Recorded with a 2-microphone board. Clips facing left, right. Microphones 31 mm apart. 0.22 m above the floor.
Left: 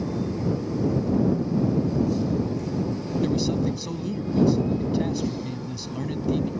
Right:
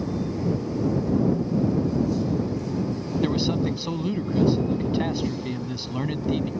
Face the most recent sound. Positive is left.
turn(degrees=-30)  # may be behind; listen again after turning